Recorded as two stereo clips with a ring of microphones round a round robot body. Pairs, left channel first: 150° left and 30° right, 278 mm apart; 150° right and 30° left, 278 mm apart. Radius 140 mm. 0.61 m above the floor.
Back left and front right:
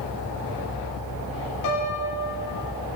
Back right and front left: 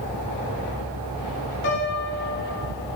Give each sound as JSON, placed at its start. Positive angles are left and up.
{"t": 1.6, "sound": "a piano", "azimuth_deg": 165, "distance_m": 1.5}